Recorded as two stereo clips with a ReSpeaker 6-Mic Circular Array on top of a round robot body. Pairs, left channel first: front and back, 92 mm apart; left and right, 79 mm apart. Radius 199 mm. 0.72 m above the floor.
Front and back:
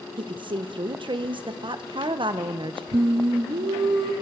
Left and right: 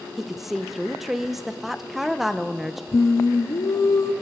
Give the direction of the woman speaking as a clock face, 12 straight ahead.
6 o'clock.